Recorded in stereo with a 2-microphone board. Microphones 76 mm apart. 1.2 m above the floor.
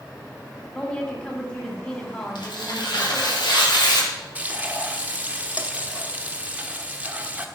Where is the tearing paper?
85° left, 3 m.